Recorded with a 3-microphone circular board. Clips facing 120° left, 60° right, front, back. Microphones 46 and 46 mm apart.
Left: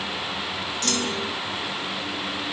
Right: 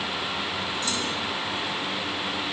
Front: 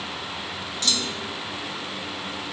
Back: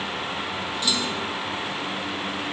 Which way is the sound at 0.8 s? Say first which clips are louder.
Left 2 dB, back 1 dB; 105° left.